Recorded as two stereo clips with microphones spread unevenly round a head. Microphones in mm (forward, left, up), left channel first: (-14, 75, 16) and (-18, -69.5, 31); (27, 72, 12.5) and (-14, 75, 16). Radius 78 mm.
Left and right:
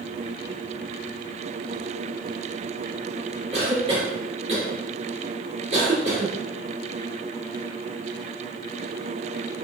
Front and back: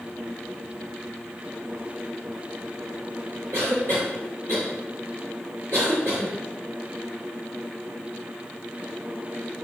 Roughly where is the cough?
Behind right.